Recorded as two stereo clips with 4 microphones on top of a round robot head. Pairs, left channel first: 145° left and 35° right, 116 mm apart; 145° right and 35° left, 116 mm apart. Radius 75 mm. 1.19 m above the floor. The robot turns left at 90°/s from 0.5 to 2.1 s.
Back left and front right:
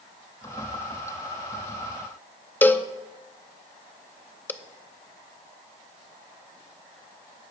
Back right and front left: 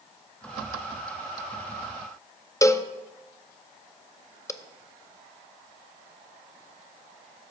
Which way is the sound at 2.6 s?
160° right.